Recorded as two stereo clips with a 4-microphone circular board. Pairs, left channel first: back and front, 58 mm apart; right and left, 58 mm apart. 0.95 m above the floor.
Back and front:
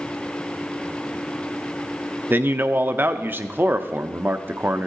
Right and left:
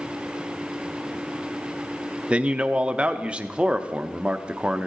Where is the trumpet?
No trumpet in this recording.